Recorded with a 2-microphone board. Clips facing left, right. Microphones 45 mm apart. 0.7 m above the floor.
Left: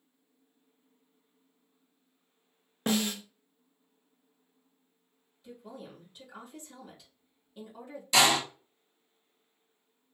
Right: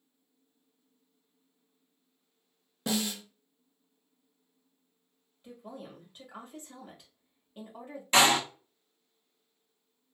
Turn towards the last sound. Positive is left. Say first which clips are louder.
# right 1 dB
turn(degrees=-35)  # may be behind; listen again after turning